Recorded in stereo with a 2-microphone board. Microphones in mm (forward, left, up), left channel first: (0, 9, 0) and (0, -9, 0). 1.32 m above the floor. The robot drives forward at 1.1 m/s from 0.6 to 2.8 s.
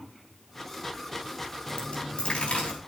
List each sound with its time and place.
1.7 s a dropped coin: 75° left (ahead or behind), 5.5 m; by 2.8 s 85° left, 5 m